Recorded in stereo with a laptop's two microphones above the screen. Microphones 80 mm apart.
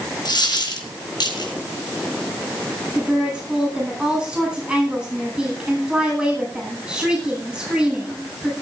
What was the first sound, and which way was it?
A dropped coin, 60° left (ahead or behind).